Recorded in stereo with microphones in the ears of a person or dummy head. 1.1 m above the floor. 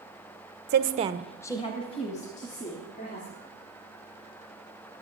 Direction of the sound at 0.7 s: 50° right (ahead or behind).